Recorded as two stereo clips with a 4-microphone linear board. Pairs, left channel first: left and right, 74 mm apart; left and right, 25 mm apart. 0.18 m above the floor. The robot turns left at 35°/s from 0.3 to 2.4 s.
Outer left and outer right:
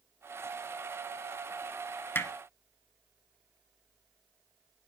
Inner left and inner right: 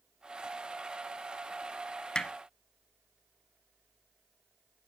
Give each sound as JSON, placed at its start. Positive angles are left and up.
{"t": 2.1, "sound": "hammering", "side_deg": 30, "distance_m": 1.1}